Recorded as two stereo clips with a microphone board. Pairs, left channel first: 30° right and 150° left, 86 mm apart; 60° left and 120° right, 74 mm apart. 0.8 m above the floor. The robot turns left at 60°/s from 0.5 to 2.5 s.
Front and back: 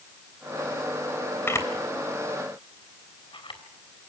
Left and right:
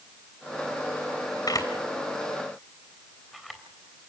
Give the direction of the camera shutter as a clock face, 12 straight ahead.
11 o'clock.